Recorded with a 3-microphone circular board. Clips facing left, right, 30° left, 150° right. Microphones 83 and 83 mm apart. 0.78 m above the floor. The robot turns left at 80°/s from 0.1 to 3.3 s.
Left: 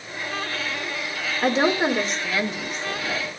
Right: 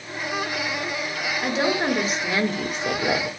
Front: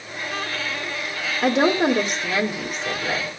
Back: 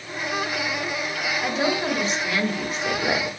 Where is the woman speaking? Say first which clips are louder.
Left 3 dB, front 7 dB; 45° left, 2 m; by 3.3 s 105° right, 2 m.